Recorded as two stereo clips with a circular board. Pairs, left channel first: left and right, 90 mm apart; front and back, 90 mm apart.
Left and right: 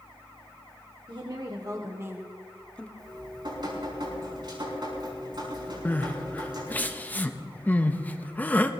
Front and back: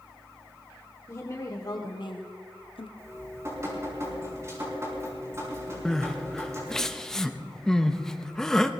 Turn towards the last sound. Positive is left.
turn(degrees=75)